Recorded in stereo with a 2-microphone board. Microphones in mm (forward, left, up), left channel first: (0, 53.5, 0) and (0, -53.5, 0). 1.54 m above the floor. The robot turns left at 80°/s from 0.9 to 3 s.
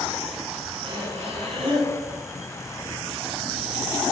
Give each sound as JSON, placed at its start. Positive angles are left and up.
{"t": 0.8, "sound": "breathing", "azimuth_deg": -60, "distance_m": 5.0}